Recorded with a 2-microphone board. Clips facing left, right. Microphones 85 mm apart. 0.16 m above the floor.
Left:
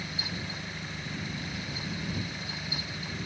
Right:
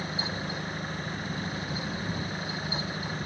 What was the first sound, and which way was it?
An engine running, 40° right (ahead or behind).